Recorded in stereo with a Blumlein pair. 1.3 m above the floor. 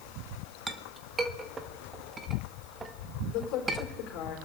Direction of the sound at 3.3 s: 35° left.